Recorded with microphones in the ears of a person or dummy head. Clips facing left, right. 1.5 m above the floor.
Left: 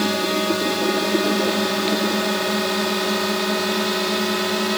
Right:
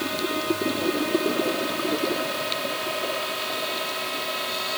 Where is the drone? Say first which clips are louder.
Left 6 dB; 70° left (ahead or behind).